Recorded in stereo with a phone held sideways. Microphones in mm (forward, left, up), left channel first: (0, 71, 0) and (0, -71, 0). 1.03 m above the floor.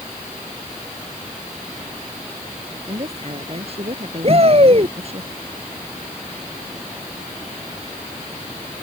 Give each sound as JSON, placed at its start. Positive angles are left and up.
{"t": 2.9, "sound": "a woman speaking", "side_deg": -45}
{"t": 4.2, "sound": "a shout", "side_deg": -45}